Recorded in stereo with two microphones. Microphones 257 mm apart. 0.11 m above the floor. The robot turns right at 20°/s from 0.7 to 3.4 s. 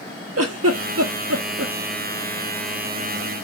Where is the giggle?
75° right (ahead or behind), 0.5 m; by 1.7 s 70° right (ahead or behind), 0.5 m.